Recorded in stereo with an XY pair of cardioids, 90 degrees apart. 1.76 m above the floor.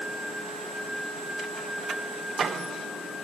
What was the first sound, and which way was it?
Only background noise.